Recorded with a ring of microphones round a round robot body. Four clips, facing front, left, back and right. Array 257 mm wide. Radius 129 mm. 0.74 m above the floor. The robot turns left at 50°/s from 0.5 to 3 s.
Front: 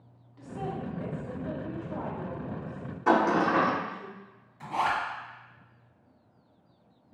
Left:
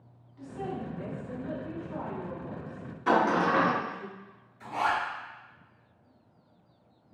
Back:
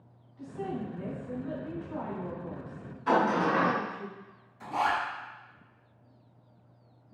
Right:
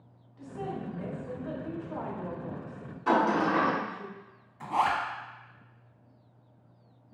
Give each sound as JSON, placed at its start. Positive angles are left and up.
{"t": 0.4, "sound": "a woman speaking", "azimuth_deg": 5, "distance_m": 1.7}
{"t": 3.1, "sound": "a sliding door", "azimuth_deg": 15, "distance_m": 1.0}
{"t": 4.6, "sound": "a zipper", "azimuth_deg": -75, "distance_m": 0.9}